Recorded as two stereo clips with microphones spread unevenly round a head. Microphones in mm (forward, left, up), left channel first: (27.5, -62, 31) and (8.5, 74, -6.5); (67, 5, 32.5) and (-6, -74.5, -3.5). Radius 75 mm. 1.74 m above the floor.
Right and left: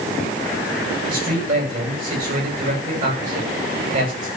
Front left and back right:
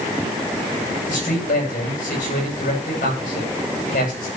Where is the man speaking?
70° left, 9.5 m.